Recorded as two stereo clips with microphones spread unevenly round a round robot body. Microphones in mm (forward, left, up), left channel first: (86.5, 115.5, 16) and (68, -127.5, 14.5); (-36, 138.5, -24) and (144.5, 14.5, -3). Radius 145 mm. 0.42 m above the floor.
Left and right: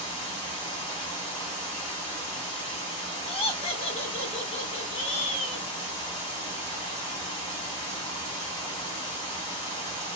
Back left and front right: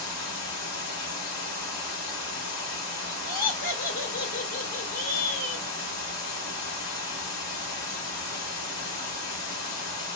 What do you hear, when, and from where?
0.0 s running water: 170° left, 1.1 m
3.3 s laughter: 145° left, 1.2 m